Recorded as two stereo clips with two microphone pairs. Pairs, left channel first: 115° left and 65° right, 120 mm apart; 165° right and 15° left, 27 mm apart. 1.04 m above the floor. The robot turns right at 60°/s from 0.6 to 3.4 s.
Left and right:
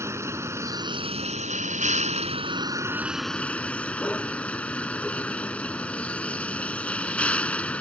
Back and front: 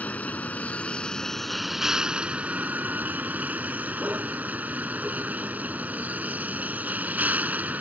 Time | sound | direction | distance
0.0 | a vehicle | 135° right | ?